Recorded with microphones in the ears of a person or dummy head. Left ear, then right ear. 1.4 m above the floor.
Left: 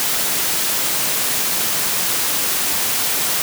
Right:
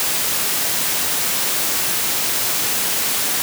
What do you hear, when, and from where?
Only background noise.